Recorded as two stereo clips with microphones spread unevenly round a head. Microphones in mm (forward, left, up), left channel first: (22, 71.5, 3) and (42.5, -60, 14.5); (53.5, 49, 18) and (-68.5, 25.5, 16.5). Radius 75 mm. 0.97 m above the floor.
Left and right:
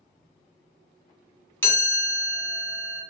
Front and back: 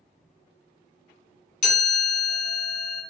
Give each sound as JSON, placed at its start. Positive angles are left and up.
{"t": 1.6, "sound": "a chime", "azimuth_deg": 30, "distance_m": 1.7}